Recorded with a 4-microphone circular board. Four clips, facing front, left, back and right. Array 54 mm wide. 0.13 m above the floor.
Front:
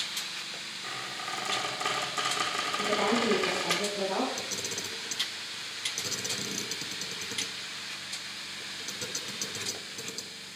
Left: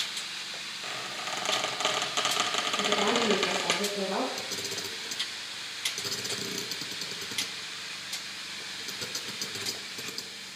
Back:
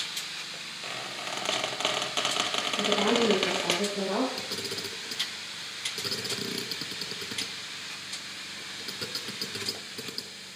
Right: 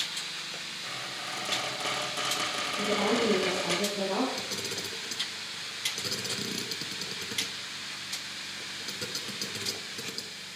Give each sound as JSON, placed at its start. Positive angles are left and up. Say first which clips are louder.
{"t": 0.8, "sound": "a squeak", "louder": "left 3 dB, back 1 dB", "azimuth_deg": 160, "distance_m": 1.8}
{"t": 2.8, "sound": "a woman speaking", "louder": "right 1 dB, back 3 dB", "azimuth_deg": -175, "distance_m": 4.5}
{"t": 4.4, "sound": "a camera shutter", "louder": "right 1 dB, back 1 dB", "azimuth_deg": -175, "distance_m": 1.0}